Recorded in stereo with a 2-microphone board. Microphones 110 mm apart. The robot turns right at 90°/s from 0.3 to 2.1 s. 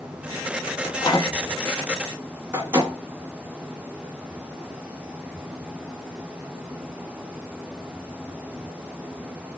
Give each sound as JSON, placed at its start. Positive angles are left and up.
{"t": 0.8, "sound": "a microwave", "side_deg": 45, "distance_m": 1.2}